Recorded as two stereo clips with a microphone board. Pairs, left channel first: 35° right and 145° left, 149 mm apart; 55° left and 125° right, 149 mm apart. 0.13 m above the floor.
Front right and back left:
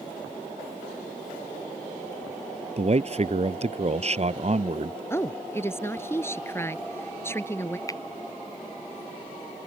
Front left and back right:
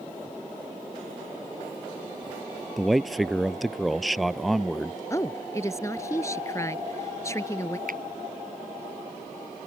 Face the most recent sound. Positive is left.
turn(degrees=-100)